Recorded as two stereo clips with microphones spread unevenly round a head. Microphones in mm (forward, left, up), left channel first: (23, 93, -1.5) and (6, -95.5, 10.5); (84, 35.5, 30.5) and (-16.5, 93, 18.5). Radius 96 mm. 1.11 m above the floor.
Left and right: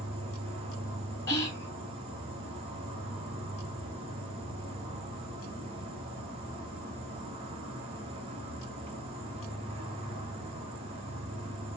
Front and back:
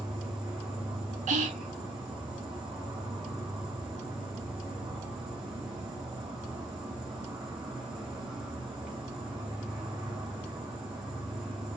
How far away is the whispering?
About 1.7 m.